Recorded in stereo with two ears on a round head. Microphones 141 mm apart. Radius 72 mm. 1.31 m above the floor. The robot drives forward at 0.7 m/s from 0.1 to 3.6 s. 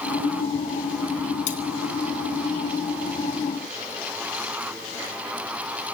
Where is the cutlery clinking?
50° left (ahead or behind), 3 m.